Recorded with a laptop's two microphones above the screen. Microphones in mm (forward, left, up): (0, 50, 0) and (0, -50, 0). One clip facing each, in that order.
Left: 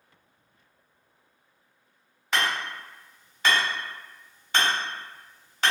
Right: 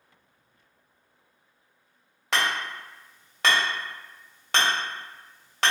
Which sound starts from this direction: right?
Hammering, at 2.3 s.